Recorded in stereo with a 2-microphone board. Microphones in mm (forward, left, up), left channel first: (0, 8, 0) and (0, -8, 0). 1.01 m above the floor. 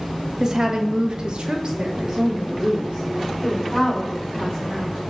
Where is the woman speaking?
30° right (ahead or behind), 1.2 m; by 5.0 s 15° right (ahead or behind), 3.5 m.